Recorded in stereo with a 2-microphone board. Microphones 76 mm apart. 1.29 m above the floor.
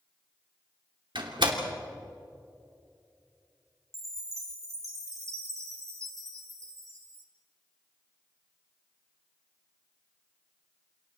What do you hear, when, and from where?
1.1 s a door slam: 80° right, 2.5 m
3.9 s a chime: 40° right (ahead or behind), 3.5 m